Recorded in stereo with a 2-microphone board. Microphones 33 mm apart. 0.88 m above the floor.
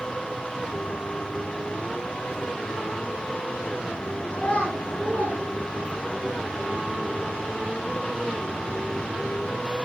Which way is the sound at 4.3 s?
40° left (ahead or behind).